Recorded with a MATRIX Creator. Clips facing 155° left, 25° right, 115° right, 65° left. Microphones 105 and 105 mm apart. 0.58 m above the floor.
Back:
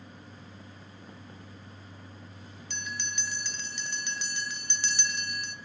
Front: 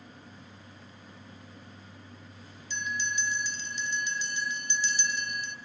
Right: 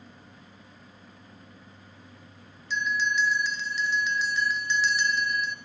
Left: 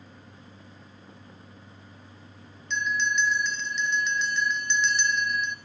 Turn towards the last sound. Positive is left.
turn(degrees=160)